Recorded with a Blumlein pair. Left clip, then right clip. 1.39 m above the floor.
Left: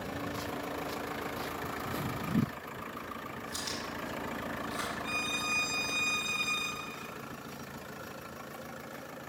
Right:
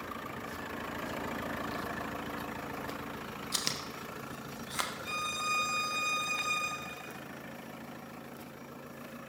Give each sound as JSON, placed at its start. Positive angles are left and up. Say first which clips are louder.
{"t": 3.5, "sound": "chewing", "louder": "right 3 dB", "azimuth_deg": -60, "distance_m": 1.1}
{"t": 5.0, "sound": "a violin", "louder": "left 2 dB", "azimuth_deg": 0, "distance_m": 1.0}